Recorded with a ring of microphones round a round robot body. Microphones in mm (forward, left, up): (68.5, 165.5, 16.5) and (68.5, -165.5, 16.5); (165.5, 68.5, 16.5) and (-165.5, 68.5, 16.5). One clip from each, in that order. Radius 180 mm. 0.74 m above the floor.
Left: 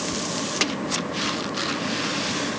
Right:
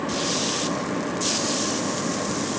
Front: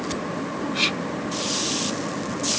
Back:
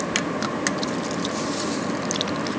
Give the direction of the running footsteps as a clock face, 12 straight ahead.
I don't hear running footsteps.